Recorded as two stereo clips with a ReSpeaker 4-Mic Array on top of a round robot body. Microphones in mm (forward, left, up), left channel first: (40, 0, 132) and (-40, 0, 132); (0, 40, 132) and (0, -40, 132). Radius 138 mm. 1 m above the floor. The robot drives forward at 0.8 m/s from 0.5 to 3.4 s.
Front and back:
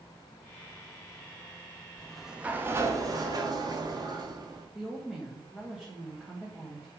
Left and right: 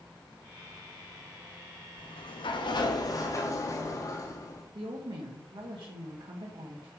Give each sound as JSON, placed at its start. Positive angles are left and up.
{"t": 2.0, "sound": "a sliding door", "azimuth_deg": 80, "distance_m": 0.8}
{"t": 4.8, "sound": "a woman speaking", "azimuth_deg": -100, "distance_m": 1.8}